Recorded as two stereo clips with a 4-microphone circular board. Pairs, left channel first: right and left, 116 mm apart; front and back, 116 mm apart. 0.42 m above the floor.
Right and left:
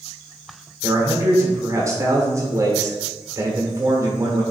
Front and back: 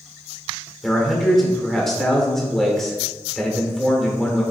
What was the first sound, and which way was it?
A man speaking, 80° left.